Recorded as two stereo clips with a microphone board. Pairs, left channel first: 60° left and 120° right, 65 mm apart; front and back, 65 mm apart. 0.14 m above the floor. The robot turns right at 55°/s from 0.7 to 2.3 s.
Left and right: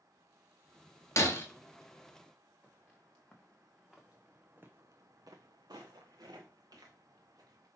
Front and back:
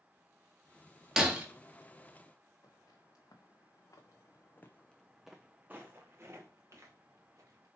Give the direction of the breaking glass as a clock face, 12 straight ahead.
9 o'clock.